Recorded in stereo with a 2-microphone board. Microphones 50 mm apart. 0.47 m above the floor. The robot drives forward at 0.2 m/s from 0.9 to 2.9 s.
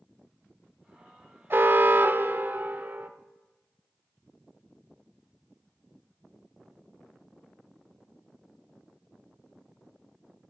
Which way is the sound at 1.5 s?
50° right (ahead or behind).